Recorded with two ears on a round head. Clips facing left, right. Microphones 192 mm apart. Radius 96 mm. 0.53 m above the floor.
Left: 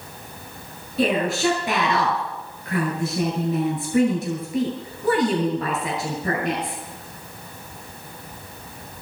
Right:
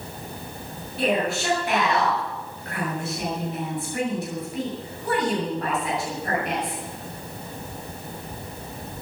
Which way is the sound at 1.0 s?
65° left (ahead or behind).